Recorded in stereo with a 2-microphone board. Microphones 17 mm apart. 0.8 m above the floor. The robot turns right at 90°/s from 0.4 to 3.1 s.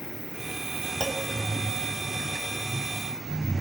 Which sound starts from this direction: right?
A clunk, at 1.0 s.